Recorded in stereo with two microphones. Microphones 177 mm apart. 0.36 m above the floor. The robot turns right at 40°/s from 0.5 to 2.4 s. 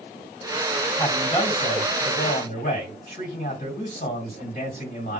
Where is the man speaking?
15° left, 2 m; by 5.2 s 70° left, 2 m.